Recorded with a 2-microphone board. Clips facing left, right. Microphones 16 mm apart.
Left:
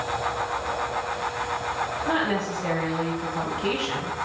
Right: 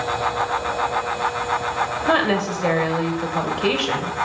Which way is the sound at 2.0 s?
65° right (ahead or behind).